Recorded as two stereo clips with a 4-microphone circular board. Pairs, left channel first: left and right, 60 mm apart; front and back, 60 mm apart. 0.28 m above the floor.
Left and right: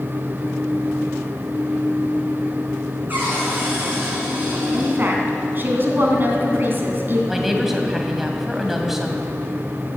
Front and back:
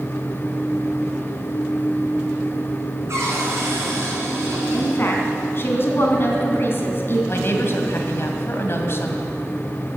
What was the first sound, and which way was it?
A cupboard door, 145° right.